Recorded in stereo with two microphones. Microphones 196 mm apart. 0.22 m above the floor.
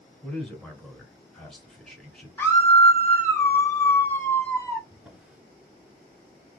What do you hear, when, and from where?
0.2 s a man speaking: 5° left (ahead or behind), 2.5 m
2.4 s a scream: 10° left (ahead or behind), 1.7 m
4.9 s a drawer: 5° right (ahead or behind), 1.2 m